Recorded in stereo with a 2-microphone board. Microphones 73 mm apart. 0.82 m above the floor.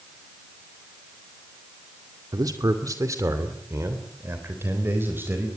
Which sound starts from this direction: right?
A man speaking, at 2.3 s.